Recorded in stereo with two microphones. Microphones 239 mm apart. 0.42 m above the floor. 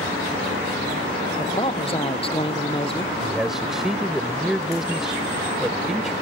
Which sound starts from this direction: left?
A man speaking, at 1.4 s.